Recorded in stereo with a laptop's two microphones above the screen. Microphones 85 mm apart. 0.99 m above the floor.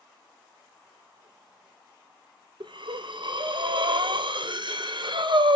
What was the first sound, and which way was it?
Breathing, 65° right (ahead or behind).